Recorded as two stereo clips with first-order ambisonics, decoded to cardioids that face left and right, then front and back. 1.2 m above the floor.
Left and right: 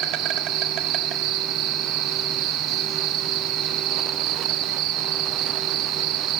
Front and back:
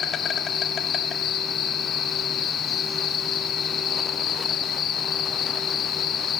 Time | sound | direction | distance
0.0 | an insect | 60° right | 1.6 m